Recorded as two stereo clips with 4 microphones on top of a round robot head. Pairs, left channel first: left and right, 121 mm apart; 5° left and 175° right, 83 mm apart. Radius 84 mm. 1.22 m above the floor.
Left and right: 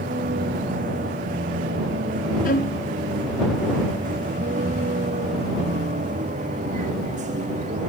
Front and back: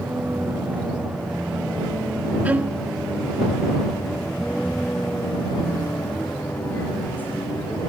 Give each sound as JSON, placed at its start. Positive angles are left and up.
{"t": 0.0, "sound": "a vehicle", "azimuth_deg": -100}
{"t": 2.5, "sound": "a violin", "azimuth_deg": 110}